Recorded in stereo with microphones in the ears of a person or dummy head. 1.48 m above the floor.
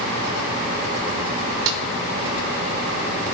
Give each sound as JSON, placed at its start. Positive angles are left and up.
{"t": 1.7, "sound": "a snare drum", "side_deg": -85, "distance_m": 1.2}